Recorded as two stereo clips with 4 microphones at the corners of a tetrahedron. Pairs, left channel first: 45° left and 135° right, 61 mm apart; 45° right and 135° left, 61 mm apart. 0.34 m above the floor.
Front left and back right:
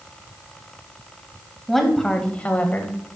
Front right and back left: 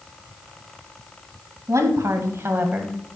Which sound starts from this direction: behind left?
A woman speaking, at 1.7 s.